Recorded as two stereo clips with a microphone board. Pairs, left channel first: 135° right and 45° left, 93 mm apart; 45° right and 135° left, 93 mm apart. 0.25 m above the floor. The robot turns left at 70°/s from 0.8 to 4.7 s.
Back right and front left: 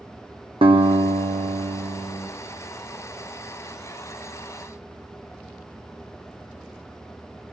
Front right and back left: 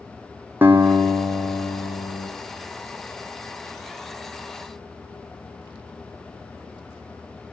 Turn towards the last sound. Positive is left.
turn(degrees=150)